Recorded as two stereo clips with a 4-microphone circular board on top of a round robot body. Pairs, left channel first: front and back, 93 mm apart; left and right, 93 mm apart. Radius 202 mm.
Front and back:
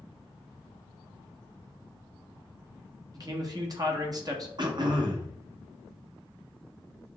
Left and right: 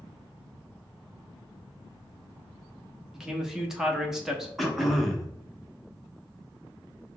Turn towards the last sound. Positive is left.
turn(degrees=180)